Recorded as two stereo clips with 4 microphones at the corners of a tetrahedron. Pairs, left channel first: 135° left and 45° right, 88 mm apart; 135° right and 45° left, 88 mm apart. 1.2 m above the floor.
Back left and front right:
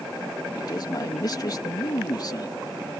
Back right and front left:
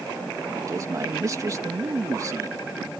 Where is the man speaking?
95° left.